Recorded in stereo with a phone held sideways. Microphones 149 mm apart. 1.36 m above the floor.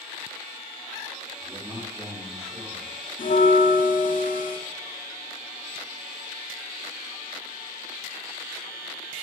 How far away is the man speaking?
About 6 m.